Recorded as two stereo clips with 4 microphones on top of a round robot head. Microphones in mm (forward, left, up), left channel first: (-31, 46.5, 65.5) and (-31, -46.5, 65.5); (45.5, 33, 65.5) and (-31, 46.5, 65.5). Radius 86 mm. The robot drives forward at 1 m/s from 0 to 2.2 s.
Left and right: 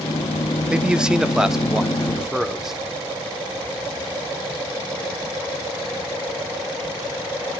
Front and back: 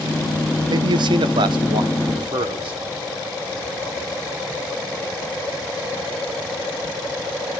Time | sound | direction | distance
0.7 | a man speaking | 170° right | 0.9 m